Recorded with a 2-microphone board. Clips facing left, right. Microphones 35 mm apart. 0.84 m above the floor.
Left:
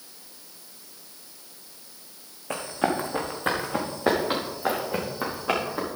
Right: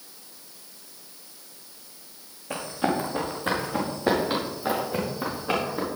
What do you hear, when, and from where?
2.5 s running footsteps: 60° left (ahead or behind), 3.5 m; by 5.9 s 65° left (ahead or behind), 6.5 m